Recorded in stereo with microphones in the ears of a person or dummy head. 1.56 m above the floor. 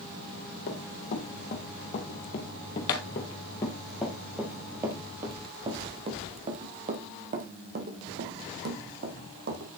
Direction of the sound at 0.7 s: 50° left (ahead or behind).